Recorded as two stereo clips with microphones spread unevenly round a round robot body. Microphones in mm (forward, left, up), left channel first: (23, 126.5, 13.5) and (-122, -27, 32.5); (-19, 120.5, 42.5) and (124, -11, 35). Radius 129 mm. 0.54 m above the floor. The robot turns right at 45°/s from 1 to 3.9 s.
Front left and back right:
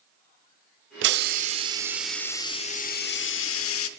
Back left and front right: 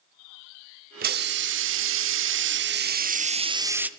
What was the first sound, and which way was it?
A hiss, 90° right.